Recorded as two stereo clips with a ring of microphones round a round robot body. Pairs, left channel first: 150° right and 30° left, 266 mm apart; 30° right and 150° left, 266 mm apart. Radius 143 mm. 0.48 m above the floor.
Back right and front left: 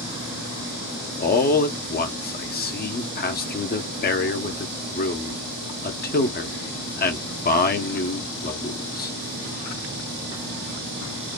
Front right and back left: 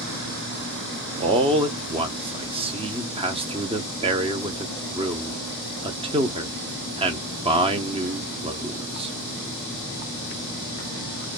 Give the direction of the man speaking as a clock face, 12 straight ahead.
5 o'clock.